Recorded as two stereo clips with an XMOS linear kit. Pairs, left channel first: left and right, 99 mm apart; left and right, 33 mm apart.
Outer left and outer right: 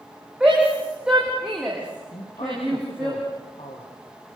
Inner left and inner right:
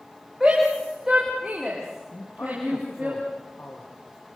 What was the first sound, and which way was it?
A shout, 10° right (ahead or behind).